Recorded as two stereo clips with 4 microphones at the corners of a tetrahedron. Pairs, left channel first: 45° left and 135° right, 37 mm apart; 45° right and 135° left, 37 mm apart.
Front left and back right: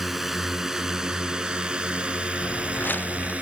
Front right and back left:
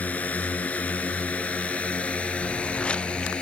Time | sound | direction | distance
0.0 | a drone | 55° right | ?
2.4 | footsteps | 15° left | ?